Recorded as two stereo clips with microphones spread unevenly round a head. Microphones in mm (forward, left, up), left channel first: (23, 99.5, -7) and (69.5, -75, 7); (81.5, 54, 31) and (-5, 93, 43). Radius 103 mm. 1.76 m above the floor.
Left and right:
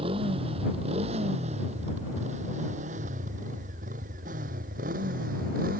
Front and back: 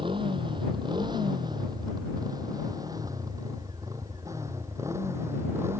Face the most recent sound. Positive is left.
turn(degrees=-130)